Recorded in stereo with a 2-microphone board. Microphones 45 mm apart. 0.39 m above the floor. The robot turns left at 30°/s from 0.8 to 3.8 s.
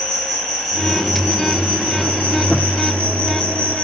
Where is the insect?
10° right, 1.6 m; by 3.9 s 100° right, 1.6 m.